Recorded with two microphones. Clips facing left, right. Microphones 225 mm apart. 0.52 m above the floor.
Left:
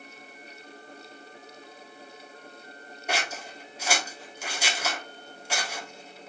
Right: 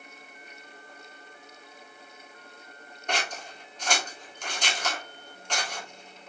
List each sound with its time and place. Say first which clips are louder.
3.1 s scissors: even; 10° left (ahead or behind), 1.5 m